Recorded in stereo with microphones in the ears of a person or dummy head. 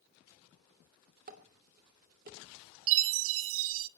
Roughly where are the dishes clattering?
Right.